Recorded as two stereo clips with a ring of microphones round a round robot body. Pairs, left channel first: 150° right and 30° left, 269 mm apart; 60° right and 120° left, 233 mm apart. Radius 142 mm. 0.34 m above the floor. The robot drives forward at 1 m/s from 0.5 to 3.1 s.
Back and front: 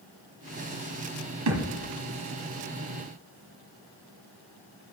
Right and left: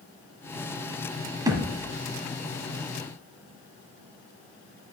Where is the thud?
45° left, 1.6 m; by 1.9 s 60° left, 1.4 m.